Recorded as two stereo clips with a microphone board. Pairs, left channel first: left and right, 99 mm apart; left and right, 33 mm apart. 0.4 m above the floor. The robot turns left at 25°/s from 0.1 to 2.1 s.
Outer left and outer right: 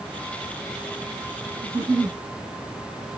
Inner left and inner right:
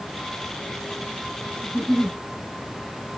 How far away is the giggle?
About 1.6 m.